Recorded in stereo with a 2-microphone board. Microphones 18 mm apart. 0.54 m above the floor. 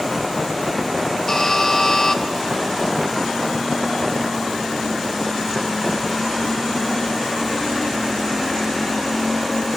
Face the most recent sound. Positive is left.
turn(degrees=30)  # may be behind; listen again after turning